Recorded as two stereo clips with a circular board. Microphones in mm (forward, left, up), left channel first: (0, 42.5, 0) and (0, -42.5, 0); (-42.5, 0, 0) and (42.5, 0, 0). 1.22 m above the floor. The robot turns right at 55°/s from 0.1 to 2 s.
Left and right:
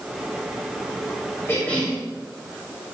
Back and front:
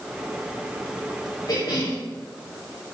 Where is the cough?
150° left, 3 m; by 2.0 s 175° left, 3 m.